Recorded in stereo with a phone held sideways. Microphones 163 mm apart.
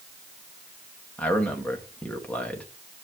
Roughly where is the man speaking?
Centre.